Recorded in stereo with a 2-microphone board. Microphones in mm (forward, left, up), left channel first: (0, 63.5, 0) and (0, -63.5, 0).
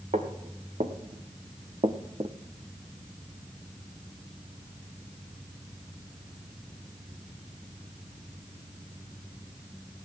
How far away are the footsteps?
About 2 m.